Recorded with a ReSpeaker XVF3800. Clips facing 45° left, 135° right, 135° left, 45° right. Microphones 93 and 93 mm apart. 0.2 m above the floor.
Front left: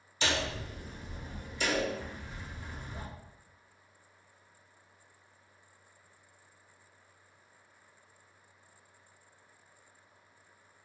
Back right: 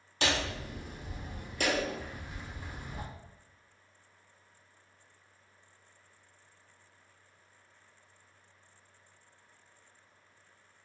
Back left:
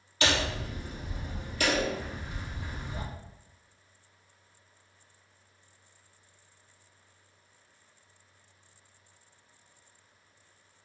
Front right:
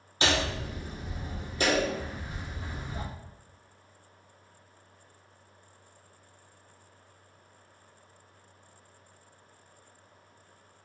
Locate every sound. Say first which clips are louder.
0.2 s hammering: back right 1 dB, front right 1 dB; 105° right, 1.9 m